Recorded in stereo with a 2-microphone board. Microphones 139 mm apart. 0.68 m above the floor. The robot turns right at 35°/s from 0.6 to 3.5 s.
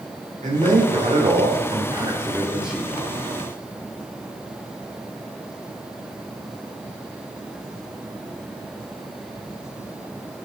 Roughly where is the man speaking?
Right.